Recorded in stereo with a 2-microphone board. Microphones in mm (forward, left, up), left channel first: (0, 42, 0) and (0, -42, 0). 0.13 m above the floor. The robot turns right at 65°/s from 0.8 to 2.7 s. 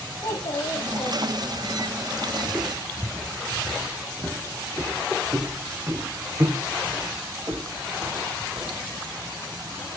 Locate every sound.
0.2 s a child speaking: 70° left, 5.5 m; by 1.7 s 130° left, 5.5 m
2.4 s footsteps: 10° right (ahead or behind), 2 m; by 8.7 s 45° right (ahead or behind), 6 m